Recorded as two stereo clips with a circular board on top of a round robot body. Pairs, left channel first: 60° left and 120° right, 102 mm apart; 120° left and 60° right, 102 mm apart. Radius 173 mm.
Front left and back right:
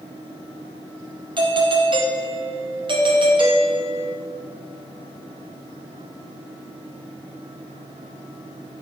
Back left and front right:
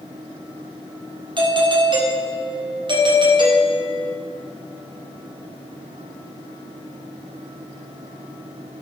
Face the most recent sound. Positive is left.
turn(degrees=-90)